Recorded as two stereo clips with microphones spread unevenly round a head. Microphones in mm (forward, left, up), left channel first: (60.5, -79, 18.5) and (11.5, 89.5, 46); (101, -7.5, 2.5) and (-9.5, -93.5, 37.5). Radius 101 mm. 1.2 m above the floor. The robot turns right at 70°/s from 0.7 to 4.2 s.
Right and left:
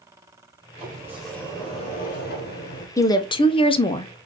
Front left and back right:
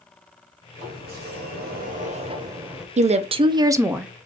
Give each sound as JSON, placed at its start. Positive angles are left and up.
{"t": 0.8, "sound": "a sliding door", "azimuth_deg": 165, "distance_m": 0.9}
{"t": 3.0, "sound": "a woman speaking", "azimuth_deg": -120, "distance_m": 0.5}